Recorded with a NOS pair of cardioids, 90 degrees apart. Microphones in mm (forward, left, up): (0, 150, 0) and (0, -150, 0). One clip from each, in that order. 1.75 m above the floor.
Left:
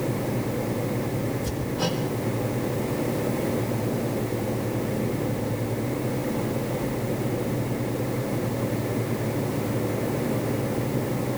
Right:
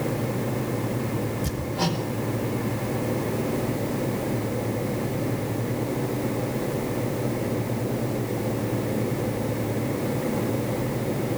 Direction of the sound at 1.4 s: 60° right.